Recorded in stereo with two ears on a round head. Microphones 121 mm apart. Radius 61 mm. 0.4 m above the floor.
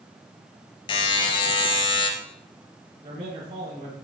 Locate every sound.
0.9 s a buzzer: 35° left (ahead or behind), 2.5 m
3.0 s a man speaking: 35° right (ahead or behind), 7 m